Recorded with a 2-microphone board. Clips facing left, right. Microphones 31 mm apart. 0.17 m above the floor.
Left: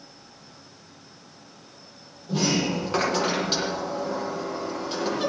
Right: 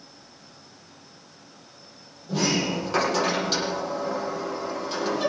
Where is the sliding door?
5° left (ahead or behind), 6 m.